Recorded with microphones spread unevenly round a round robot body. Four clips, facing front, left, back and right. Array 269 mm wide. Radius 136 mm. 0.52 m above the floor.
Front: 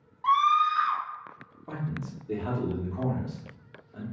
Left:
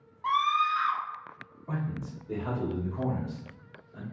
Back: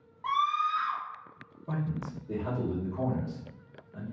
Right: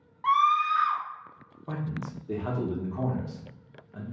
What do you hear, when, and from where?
0.2 s a scream: 165° right, 0.8 m
1.7 s a man speaking: 90° right, 1.0 m